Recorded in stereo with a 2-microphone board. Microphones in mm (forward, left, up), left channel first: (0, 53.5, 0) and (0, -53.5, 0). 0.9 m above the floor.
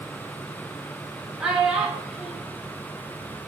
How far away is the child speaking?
About 1.0 m.